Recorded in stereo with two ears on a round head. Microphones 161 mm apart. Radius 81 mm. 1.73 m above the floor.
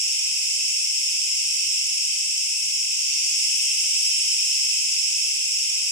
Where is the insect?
20° left (ahead or behind), 1.9 m.